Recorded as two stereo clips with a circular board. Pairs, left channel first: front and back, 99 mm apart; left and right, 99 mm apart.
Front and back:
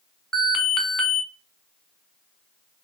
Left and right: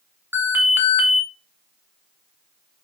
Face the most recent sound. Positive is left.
turn(degrees=-85)